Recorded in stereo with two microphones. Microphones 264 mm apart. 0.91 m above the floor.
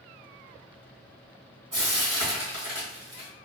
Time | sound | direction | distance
1.7 | frying | 70° right (ahead or behind) | 1.4 m